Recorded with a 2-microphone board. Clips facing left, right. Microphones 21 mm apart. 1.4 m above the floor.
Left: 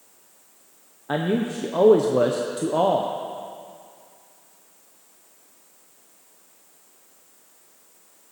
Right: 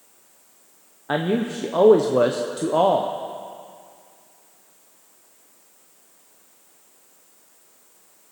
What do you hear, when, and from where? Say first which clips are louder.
1.1 s a man speaking: right 1 dB; 10° right (ahead or behind), 0.6 m